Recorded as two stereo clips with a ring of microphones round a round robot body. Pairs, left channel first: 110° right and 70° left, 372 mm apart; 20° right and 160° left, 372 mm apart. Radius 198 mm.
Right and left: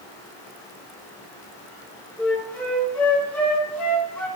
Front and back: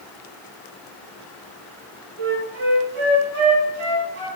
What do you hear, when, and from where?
2.2 s a flute: 160° left, 6 m